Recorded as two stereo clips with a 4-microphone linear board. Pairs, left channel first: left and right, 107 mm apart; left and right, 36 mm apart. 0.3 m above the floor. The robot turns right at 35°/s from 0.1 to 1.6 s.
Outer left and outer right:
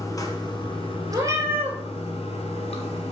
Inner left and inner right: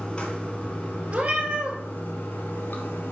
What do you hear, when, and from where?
0.0 s running water: 35° left, 1.5 m; by 3.1 s 85° left, 1.5 m
1.1 s a cat meowing: 35° right (ahead or behind), 1.3 m; by 1.8 s 20° right (ahead or behind), 1.3 m